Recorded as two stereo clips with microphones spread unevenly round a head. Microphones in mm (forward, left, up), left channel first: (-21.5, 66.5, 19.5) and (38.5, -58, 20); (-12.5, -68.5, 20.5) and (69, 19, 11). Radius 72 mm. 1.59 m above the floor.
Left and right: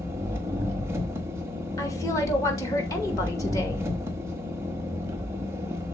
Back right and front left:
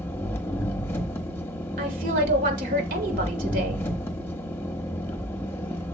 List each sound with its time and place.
0.0 s an engine running: 110° right, 1.0 m
1.8 s a woman speaking: 50° left, 2.5 m